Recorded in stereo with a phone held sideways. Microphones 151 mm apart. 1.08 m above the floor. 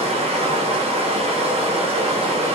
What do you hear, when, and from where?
0.0 s running water: 40° right (ahead or behind), 0.8 m